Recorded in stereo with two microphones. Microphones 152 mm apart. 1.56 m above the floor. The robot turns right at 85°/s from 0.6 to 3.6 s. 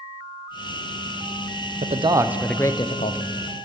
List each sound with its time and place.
1.8 s a man speaking: 55° right, 0.6 m; by 3.3 s 75° left, 0.6 m